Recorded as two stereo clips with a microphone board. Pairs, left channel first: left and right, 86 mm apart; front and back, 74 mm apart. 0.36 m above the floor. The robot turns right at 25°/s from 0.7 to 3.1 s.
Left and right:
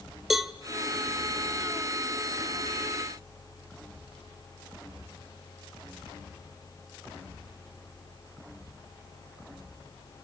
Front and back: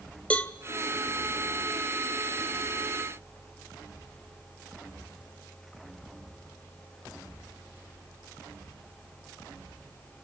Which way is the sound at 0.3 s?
10° right.